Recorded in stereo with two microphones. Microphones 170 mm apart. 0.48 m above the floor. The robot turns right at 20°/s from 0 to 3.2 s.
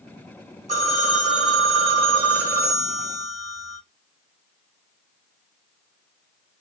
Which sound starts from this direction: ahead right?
A phone ringing, at 0.7 s.